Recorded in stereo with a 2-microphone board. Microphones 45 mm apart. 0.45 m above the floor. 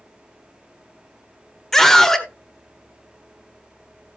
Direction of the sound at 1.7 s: 10° left (ahead or behind).